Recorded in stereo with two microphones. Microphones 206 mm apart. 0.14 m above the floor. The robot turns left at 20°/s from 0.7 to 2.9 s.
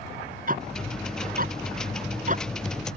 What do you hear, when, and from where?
0.5 s ticking: 45° right (ahead or behind); by 2.5 s 40° right (ahead or behind)